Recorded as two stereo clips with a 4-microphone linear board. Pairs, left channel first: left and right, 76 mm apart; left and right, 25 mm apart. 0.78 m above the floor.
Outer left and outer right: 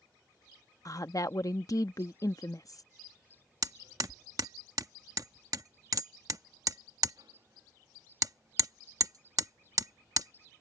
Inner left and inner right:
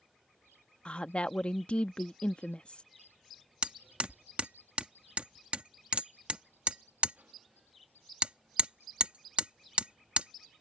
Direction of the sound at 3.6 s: 55° right (ahead or behind).